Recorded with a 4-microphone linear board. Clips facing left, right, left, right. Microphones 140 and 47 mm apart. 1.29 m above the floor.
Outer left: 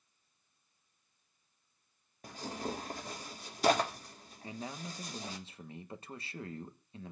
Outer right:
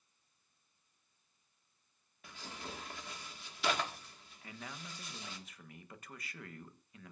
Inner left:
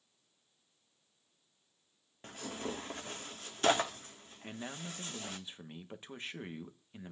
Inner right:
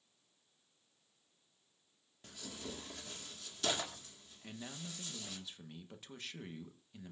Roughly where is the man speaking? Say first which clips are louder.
Outer left 6 dB, inner left 4 dB; left.